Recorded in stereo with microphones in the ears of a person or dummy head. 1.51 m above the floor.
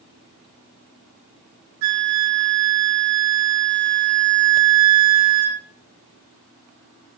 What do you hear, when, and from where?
1.8 s a flute: 85° right, 2.5 m